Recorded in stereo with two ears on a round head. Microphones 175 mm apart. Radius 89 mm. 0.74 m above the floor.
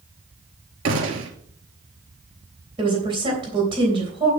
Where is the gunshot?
80° right, 2.5 m.